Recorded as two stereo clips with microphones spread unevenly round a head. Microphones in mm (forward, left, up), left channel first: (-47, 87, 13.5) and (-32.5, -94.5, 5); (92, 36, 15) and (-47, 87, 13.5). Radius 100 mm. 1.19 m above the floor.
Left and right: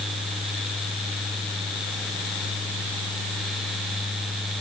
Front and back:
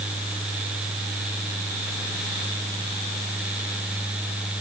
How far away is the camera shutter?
I don't hear a camera shutter.